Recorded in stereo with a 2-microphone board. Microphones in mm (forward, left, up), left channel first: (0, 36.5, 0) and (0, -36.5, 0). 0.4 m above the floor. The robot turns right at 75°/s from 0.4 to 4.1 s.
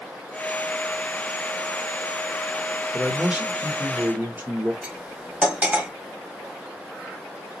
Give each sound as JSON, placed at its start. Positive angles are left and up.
{"t": 2.9, "sound": "a man speaking", "side_deg": -5, "distance_m": 0.9}
{"t": 4.8, "sound": "cutlery clinking", "side_deg": -20, "distance_m": 1.4}